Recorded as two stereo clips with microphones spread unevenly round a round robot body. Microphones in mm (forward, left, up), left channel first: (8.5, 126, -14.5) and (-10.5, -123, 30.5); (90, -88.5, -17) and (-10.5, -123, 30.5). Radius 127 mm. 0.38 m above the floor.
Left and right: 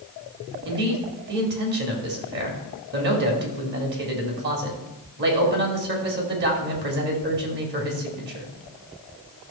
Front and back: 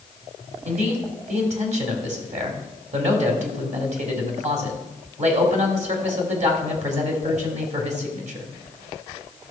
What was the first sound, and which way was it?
A man speaking, 145° right.